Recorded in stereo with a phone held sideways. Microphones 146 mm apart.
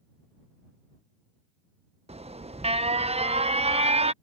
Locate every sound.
2.1 s an alarm: 45° right (ahead or behind)